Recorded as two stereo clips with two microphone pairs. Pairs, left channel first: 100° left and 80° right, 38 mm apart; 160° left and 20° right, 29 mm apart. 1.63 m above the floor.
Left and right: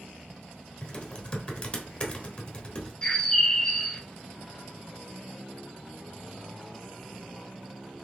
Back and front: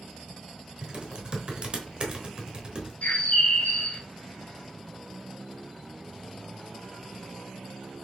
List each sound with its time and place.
0.8 s typing on a keyboard: 40° left, 0.9 m
3.0 s a bird: 165° left, 0.7 m